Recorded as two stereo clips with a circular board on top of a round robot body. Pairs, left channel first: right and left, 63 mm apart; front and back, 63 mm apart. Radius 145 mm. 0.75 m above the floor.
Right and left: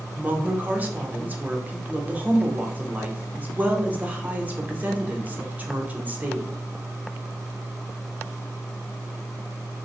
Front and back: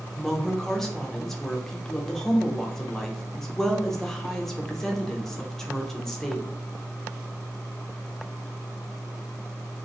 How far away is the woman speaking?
About 0.9 m.